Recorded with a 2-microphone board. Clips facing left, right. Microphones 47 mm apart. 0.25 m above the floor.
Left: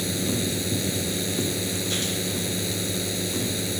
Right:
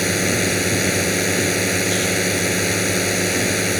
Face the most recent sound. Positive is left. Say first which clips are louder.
# right 8 dB
turn(degrees=-65)  # may be behind; listen again after turning